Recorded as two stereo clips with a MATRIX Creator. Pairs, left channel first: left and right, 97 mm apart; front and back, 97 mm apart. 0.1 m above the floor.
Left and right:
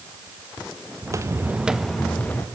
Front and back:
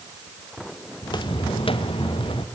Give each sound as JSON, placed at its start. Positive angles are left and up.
{"t": 1.0, "sound": "footsteps", "azimuth_deg": -40, "distance_m": 2.0}